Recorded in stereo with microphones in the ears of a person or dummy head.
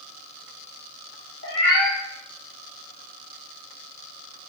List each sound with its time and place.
1.4 s a cat meowing: 60° left (ahead or behind), 1.4 m